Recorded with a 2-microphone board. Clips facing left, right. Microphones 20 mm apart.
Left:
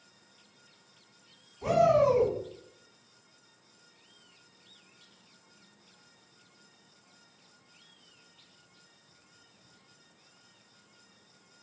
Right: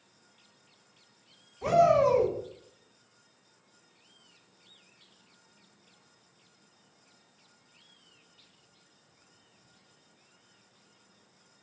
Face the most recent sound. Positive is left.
turn(degrees=-15)  # may be behind; listen again after turning